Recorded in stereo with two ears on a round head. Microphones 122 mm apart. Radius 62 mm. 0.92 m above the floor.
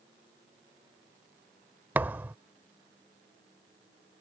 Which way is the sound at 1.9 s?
15° right (ahead or behind).